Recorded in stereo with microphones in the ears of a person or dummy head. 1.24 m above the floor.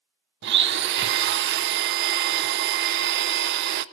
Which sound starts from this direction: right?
A blender, at 0.4 s.